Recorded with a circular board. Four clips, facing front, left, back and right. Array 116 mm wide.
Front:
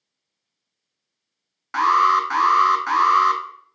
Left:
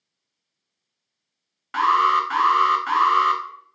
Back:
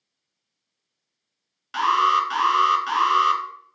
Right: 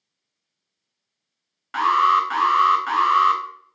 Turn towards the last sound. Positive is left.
turn(degrees=5)